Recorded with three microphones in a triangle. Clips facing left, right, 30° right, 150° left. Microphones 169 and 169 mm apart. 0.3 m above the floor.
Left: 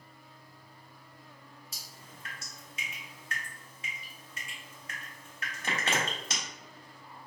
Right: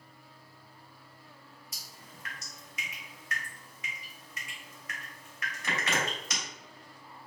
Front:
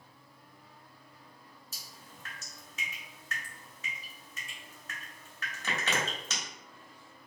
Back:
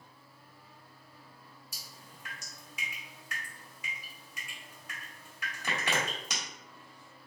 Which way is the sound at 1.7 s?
85° left.